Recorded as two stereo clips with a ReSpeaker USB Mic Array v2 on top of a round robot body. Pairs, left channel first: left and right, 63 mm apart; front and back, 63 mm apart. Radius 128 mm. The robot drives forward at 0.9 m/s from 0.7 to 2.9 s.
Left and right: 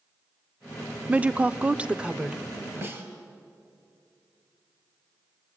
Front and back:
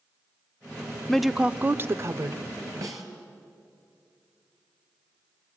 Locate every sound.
1.1 s a woman speaking: 65° right, 0.8 m; by 2.4 s 165° right, 1.4 m
2.8 s a snare drum: 145° right, 4.5 m